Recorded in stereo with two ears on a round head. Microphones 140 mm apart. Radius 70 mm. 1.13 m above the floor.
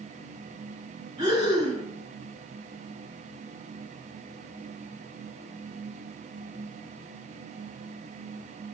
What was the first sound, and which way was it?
Breathing, 40° right (ahead or behind).